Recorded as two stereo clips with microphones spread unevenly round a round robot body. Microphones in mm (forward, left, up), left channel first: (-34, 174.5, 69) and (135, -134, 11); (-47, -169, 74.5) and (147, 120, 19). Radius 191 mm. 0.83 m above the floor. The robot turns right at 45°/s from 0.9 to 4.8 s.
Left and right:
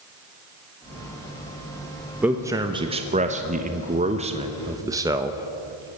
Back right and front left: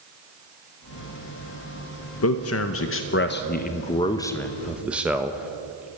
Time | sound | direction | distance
2.2 | a man speaking | 125° right | 1.0 m